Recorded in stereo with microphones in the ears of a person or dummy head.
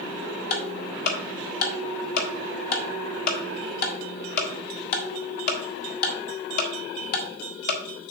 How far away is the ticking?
About 1.2 m.